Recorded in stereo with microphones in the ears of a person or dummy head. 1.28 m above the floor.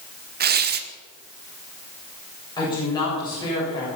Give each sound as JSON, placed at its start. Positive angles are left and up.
{"t": 0.4, "sound": "tearing paper", "side_deg": -45, "distance_m": 0.9}
{"t": 2.6, "sound": "a woman speaking", "side_deg": 20, "distance_m": 7.5}